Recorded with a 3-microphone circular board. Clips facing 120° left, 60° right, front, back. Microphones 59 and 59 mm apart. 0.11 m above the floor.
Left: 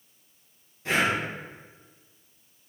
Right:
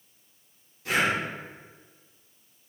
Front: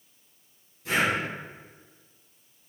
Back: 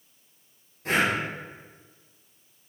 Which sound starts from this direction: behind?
Breathing, at 0.8 s.